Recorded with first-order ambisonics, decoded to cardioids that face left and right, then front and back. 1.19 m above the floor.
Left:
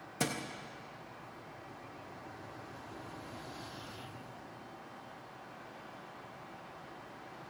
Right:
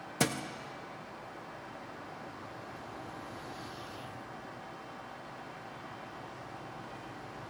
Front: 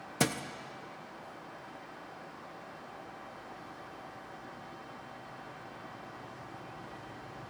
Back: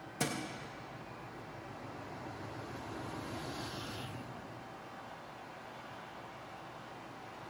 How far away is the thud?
About 0.5 m.